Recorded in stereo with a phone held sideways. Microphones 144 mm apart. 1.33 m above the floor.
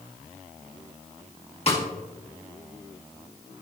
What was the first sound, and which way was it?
A snare drum, 45° left (ahead or behind).